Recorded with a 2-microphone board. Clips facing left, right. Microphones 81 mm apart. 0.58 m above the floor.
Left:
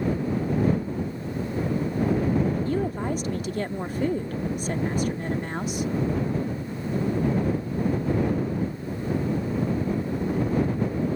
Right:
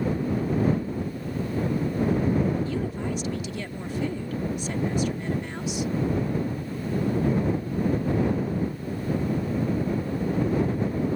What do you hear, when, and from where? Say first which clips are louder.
2.6 s a woman speaking: left 3 dB; 45° left (ahead or behind)